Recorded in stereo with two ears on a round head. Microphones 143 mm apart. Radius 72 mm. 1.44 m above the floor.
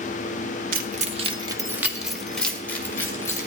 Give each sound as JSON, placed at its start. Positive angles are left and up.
{"t": 0.7, "sound": "keys jangling", "side_deg": -55, "distance_m": 1.0}